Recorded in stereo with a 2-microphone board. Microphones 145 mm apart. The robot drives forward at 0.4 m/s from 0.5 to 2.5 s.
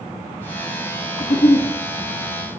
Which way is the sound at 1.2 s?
70° left (ahead or behind).